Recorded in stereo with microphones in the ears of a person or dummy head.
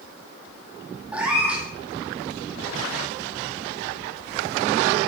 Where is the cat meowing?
5° right (ahead or behind), 2.0 m.